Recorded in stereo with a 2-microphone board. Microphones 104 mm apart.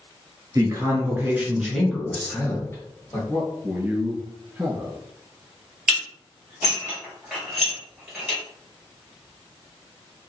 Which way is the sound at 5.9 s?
5° right (ahead or behind).